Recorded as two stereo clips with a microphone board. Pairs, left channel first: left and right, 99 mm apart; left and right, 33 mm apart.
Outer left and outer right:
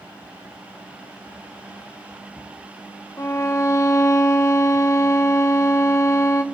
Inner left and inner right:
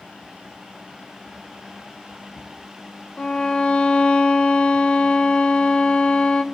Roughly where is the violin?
Left.